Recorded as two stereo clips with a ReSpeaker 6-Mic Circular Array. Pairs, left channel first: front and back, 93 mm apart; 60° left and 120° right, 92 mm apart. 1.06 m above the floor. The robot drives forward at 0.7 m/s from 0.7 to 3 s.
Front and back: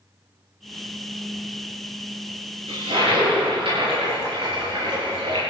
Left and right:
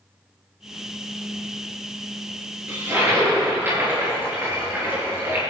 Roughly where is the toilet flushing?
Behind.